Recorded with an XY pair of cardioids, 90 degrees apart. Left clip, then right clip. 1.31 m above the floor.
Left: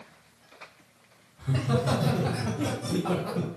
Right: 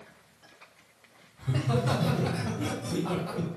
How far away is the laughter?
About 1.4 m.